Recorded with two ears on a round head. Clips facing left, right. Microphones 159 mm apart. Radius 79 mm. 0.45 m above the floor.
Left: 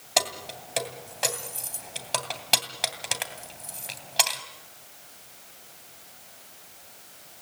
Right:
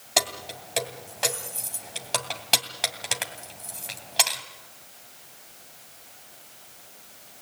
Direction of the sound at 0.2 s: Centre (ahead or behind).